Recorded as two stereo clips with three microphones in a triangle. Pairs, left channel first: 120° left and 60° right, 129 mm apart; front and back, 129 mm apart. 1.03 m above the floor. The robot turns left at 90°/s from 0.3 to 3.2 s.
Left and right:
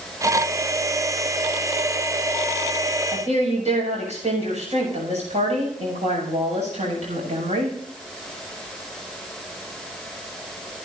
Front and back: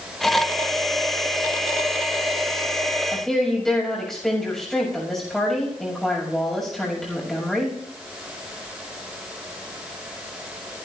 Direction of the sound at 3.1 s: 80° right.